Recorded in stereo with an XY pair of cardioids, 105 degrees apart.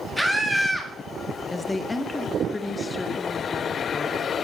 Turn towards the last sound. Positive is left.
turn(degrees=20)